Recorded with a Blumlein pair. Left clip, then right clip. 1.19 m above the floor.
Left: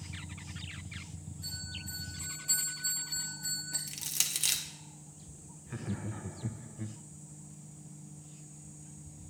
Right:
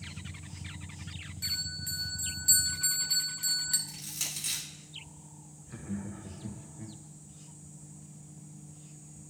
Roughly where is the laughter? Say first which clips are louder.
Left 1 dB; ahead.